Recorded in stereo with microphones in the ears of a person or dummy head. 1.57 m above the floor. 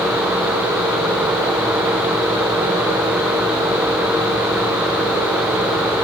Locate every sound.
Only background noise.